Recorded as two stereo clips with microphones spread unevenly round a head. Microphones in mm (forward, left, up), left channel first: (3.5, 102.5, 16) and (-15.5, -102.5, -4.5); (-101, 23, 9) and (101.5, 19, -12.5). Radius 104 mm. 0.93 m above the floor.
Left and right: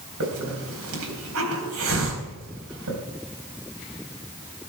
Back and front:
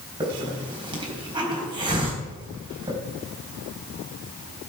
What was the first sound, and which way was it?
A hiss, 70° right.